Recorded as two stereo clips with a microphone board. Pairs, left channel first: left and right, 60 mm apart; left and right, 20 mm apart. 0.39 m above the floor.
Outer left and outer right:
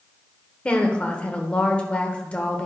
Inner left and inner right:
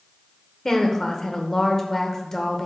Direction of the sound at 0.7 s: 20° left (ahead or behind).